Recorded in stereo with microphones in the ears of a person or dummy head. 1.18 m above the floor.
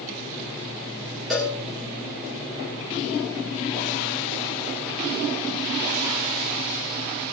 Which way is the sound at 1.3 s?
Centre (ahead or behind).